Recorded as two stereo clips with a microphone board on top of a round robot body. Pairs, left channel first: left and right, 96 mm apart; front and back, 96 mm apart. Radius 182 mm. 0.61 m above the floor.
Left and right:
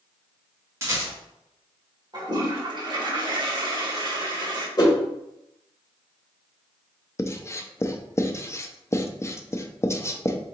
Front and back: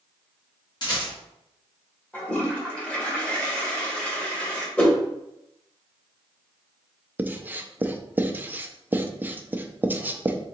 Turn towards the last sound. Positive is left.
turn(degrees=125)